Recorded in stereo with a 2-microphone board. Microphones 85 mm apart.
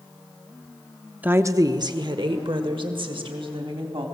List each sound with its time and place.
1.2 s a woman speaking: 20° right (ahead or behind), 0.7 m; by 4.0 s 75° right (ahead or behind), 3.5 m